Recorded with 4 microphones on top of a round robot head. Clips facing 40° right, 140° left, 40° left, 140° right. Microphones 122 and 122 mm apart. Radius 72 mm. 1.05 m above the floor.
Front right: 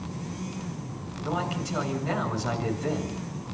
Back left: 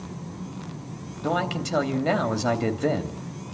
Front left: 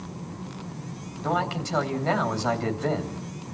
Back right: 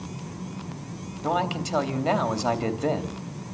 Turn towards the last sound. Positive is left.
turn(degrees=145)